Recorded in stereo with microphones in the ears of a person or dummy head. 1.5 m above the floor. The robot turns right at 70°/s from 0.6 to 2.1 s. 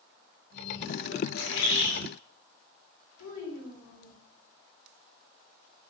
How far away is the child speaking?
About 4.5 m.